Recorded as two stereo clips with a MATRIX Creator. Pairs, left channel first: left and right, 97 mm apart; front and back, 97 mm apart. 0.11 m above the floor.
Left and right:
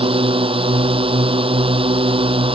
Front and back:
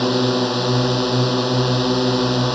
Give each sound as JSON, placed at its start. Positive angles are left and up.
{"t": 0.0, "sound": "a drone", "azimuth_deg": -90}